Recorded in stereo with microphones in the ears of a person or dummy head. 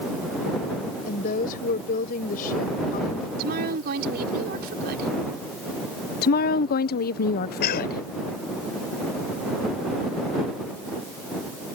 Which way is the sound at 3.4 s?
55° right (ahead or behind).